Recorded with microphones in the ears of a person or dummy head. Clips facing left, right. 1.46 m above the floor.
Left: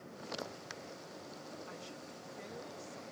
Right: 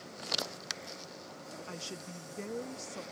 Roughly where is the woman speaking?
Right.